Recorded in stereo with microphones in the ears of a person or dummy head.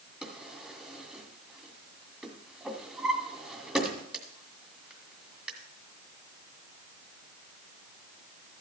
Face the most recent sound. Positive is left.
turn(degrees=-5)  # may be behind; listen again after turning